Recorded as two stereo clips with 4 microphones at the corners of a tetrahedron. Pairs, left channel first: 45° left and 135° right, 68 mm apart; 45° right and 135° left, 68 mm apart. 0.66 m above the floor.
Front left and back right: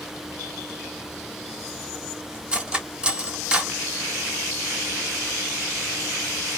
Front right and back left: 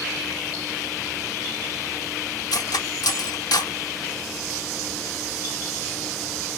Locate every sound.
2.5 s cutlery clinking: 60° right, 0.6 m